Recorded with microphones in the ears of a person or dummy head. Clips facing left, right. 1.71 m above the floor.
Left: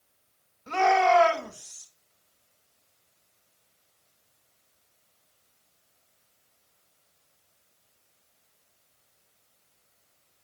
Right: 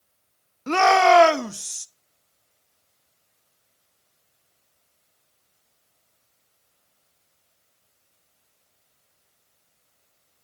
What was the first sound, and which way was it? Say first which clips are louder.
A shout: right 5 dB; 75° right (ahead or behind).